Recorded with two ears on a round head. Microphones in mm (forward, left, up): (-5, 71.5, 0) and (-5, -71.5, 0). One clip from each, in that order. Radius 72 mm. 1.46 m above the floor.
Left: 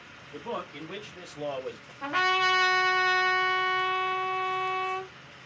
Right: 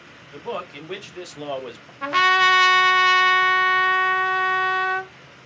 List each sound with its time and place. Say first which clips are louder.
0.3 s a man speaking: right 5 dB; 80° right, 1.9 m; by 1.9 s 65° right (ahead or behind), 1.3 m
2.0 s a trumpet: right 8 dB; 80° right, 1.4 m